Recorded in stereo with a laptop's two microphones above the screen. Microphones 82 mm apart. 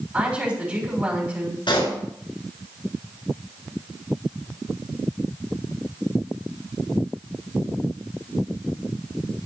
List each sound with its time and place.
0.1 s a woman speaking: 20° right (ahead or behind), 6.5 m
1.7 s a pop: 70° left (ahead or behind), 4.5 m